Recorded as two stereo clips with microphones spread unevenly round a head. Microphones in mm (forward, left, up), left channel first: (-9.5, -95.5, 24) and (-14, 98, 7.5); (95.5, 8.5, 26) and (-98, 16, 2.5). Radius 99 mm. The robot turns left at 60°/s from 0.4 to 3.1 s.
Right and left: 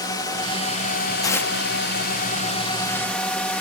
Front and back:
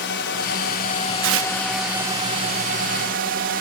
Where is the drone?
20° right; by 3.6 s 175° right.